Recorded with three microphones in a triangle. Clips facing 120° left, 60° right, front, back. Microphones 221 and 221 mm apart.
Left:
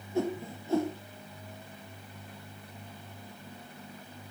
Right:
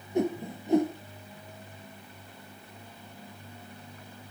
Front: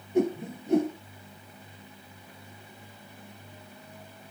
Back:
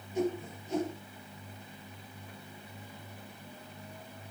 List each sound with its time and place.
0.1 s a whoosh: 10° left, 3 m